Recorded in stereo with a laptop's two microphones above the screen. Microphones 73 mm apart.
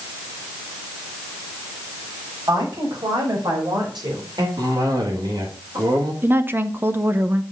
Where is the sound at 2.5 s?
70° right (ahead or behind), 5 m; by 4.5 s 75° right (ahead or behind), 3 m.